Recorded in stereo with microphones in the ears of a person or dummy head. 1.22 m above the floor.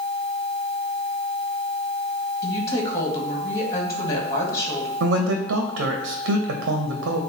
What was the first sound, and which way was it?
A woman speaking, 20° left (ahead or behind).